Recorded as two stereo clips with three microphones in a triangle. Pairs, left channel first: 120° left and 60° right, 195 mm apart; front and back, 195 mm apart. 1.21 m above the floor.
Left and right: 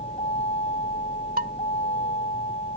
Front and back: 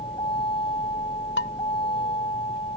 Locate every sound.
0.0 s a vehicle: 65° left
1.4 s dishes clattering: 20° right